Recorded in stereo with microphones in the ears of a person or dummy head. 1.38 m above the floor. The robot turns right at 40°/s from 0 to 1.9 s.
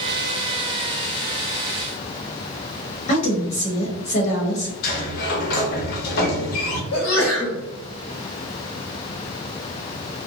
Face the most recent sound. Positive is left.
turn(degrees=65)  # may be behind; listen again after turning